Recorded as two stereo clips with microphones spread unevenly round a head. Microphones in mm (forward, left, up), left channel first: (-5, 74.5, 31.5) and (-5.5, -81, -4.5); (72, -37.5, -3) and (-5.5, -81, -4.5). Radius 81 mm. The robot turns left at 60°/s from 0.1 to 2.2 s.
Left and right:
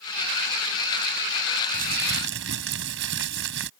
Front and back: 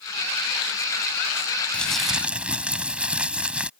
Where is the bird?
No bird in this recording.